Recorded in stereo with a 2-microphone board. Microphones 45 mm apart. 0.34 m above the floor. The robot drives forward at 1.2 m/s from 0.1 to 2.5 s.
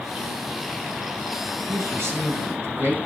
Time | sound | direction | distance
1.7 | a man speaking | 65° right (ahead or behind) | 4 m